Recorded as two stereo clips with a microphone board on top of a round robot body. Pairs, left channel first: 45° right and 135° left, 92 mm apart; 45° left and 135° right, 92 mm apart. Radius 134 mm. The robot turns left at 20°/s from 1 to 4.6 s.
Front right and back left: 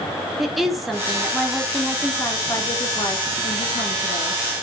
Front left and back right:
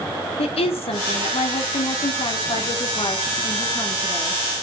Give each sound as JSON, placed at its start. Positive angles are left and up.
{"t": 0.4, "sound": "a woman speaking", "azimuth_deg": 45, "distance_m": 3.0}